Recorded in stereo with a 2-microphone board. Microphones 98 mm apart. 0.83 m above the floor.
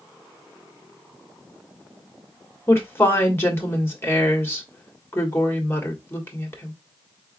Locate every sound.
2.7 s a woman speaking: 25° left (ahead or behind), 1.6 m